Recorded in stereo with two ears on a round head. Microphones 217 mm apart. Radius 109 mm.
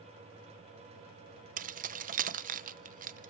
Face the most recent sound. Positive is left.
turn(degrees=-35)  # may be behind; listen again after turning